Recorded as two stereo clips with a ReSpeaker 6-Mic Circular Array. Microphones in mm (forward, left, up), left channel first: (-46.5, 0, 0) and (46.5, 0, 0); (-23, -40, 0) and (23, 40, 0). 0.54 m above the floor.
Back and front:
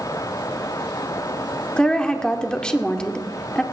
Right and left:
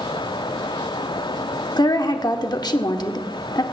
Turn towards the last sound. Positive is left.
turn(degrees=-100)